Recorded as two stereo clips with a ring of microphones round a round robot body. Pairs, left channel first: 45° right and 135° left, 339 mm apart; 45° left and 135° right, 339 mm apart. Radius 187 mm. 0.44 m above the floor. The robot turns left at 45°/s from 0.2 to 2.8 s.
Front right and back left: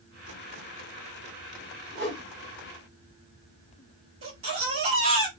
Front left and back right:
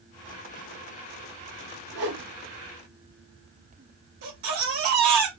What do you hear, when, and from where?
1.9 s a whoosh: 95° right, 2.5 m; by 2.2 s 105° right, 2.5 m
4.2 s a baby crying: 175° right, 2.5 m